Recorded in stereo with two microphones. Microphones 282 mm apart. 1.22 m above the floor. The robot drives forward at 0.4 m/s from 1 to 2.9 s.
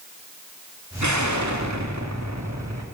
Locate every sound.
1.0 s an explosion: 80° right, 2.5 m; by 2.9 s 65° right (ahead or behind), 2.5 m